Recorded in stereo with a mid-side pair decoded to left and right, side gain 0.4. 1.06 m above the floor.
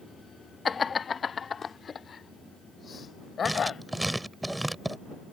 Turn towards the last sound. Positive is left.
turn(degrees=-10)